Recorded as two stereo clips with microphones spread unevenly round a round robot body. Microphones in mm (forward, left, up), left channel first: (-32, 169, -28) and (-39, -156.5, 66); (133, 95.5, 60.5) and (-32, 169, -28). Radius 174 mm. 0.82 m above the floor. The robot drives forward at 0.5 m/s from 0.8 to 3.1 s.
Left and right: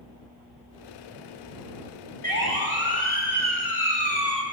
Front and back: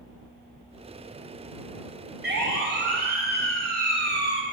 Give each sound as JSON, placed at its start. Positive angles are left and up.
{"t": 2.2, "sound": "a siren", "azimuth_deg": 140, "distance_m": 6.0}